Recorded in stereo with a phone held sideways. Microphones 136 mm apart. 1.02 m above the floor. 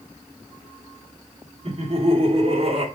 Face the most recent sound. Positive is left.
turn(degrees=-50)  # may be behind; listen again after turning